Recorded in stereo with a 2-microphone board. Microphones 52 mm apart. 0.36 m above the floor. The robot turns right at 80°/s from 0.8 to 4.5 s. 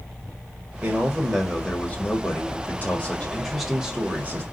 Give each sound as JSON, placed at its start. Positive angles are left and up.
{"t": 0.8, "sound": "a man speaking", "azimuth_deg": -40, "distance_m": 1.7}